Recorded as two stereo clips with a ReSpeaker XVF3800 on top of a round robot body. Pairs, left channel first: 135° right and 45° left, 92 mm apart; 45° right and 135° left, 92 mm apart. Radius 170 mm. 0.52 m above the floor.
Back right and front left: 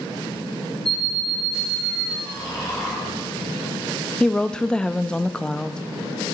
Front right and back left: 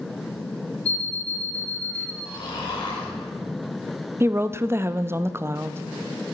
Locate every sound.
0.8 s an alarm clock: 50° right, 1.6 m
2.2 s snoring: 80° right, 3.5 m
4.2 s a woman speaking: 155° left, 0.6 m